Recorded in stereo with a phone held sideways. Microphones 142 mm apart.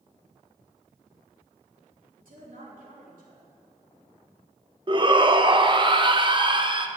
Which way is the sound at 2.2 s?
80° right.